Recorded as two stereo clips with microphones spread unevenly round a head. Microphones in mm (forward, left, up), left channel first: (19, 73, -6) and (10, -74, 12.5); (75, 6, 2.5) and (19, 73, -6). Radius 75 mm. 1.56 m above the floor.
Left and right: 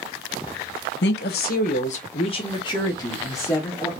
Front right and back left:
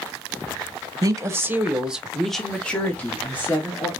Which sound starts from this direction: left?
A woman speaking, at 1.0 s.